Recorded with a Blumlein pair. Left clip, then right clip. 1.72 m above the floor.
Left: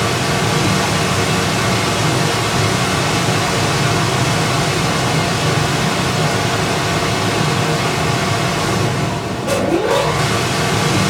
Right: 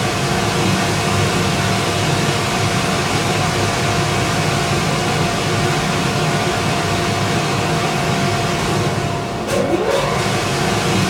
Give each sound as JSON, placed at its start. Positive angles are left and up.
{"t": 0.0, "sound": "a machine running", "azimuth_deg": 15, "distance_m": 1.1}